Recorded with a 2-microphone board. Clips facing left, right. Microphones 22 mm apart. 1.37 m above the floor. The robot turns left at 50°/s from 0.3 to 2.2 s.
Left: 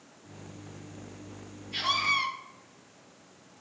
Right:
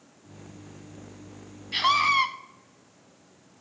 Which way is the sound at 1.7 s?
65° right (ahead or behind).